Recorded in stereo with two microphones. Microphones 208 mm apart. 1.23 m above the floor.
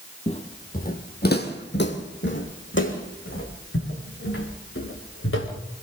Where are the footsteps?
30° left (ahead or behind), 2 m; by 5.5 s 80° left, 6.5 m.